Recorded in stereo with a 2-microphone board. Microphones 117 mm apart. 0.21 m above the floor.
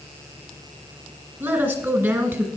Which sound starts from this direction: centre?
A woman speaking, at 1.4 s.